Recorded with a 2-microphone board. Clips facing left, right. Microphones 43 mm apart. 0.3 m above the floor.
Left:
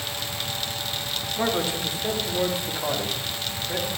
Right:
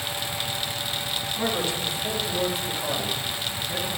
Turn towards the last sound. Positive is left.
turn(degrees=25)  # may be behind; listen again after turning